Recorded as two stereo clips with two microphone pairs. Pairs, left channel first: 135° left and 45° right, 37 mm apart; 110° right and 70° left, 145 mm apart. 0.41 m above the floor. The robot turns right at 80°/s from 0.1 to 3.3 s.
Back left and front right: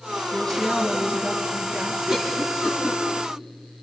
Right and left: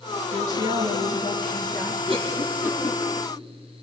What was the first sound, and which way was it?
A woman speaking, 150° right.